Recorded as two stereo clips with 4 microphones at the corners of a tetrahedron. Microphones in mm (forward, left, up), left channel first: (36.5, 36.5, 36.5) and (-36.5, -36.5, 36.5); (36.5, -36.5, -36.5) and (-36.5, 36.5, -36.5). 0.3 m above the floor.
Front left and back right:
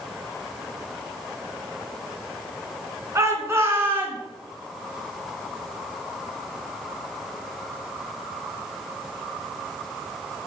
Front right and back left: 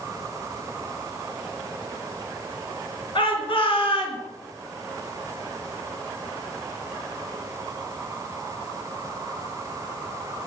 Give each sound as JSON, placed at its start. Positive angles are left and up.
{"t": 3.1, "sound": "a shout", "azimuth_deg": -75, "distance_m": 4.0}